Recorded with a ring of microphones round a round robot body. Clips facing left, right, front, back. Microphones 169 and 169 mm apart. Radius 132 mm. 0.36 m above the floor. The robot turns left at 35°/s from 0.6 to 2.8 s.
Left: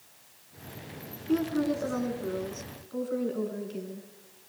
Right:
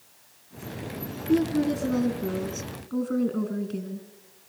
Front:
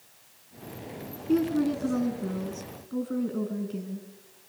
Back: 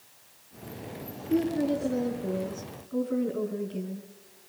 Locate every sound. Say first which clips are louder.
1.3 s a woman speaking: right 4 dB, front 1 dB; 10° right, 4 m; by 4.1 s 65° right, 4 m